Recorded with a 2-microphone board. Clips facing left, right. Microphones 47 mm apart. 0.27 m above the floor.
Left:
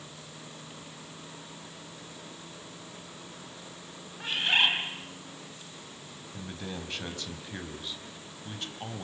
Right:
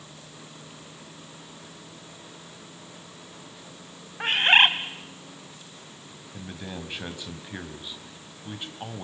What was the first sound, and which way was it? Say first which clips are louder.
A bird: right 7 dB; 45° right (ahead or behind).